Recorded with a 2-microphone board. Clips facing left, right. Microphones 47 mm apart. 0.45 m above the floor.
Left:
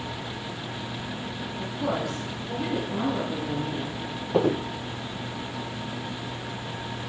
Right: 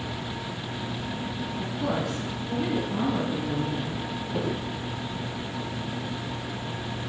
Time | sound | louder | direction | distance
1.6 | a woman speaking | left 1 dB | 5° left (ahead or behind) | 4.5 m
4.3 | footsteps | left 8 dB | 50° left (ahead or behind) | 0.7 m